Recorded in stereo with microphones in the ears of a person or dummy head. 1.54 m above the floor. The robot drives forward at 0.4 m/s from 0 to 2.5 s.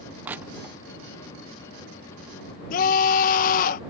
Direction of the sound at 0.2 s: 10° right (ahead or behind).